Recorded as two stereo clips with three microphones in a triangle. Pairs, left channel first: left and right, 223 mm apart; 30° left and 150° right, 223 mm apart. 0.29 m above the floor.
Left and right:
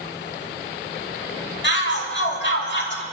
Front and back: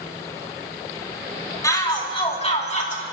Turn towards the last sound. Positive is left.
turn(degrees=75)